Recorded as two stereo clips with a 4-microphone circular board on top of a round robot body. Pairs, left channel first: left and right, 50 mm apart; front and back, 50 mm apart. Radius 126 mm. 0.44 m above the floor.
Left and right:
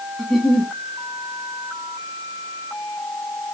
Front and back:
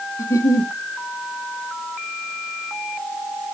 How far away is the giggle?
About 1.2 m.